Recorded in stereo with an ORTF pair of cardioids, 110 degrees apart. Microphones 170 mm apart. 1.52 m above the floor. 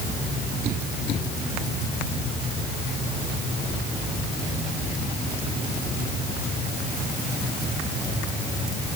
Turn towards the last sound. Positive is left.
No sound to turn to.